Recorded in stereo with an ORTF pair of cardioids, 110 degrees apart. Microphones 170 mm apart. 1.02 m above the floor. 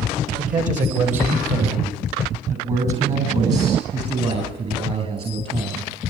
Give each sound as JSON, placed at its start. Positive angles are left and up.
{"t": 0.4, "sound": "a man speaking", "azimuth_deg": -50, "distance_m": 6.0}